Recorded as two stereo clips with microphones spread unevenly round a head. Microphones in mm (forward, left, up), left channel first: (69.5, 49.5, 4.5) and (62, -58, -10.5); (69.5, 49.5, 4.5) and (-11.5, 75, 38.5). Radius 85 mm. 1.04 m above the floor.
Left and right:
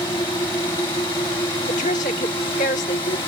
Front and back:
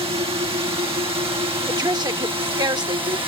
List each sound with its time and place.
0.0 s a drone: 150° left; by 3.3 s 145° left
1.7 s a woman speaking: 125° left